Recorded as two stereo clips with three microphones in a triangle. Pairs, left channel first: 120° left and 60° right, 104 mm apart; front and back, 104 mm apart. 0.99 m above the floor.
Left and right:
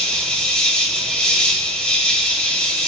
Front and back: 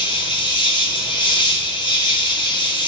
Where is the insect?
40° left, 1.5 m.